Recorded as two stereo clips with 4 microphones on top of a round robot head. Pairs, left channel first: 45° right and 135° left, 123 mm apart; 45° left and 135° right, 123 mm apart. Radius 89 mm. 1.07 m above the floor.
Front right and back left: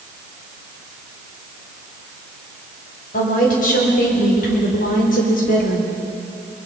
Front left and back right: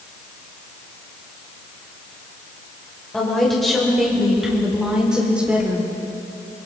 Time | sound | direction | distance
3.1 | a woman speaking | 40° right | 5.5 m